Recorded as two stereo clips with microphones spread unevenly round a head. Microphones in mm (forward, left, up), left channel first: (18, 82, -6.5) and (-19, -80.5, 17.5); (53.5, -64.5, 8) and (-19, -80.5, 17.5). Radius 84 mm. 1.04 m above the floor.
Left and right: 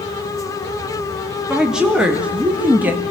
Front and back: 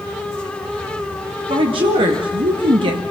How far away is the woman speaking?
About 3 m.